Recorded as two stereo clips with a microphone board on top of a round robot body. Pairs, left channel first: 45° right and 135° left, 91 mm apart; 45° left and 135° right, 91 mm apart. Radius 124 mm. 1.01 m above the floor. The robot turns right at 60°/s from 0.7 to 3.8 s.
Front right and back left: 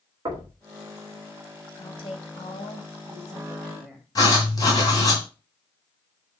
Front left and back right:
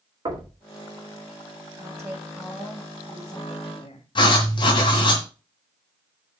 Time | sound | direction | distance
0.2 | knocking | straight behind | 1.8 m
1.8 | a woman speaking | 90° right | 2.5 m
4.2 | writing | 5° left | 1.7 m